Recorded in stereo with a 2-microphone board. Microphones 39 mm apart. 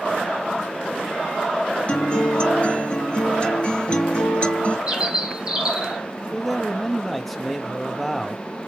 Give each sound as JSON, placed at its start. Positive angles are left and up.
{"t": 1.9, "sound": "a guitar", "side_deg": 30, "distance_m": 2.5}
{"t": 4.9, "sound": "a bird", "side_deg": -25, "distance_m": 2.5}
{"t": 6.3, "sound": "a man speaking", "side_deg": 0, "distance_m": 0.7}